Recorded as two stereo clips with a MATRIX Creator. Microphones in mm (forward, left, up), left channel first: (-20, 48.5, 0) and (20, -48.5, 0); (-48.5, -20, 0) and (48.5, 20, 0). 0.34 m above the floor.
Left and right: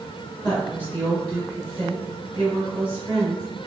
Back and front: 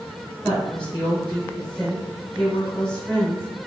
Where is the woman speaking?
135° left, 1.3 m.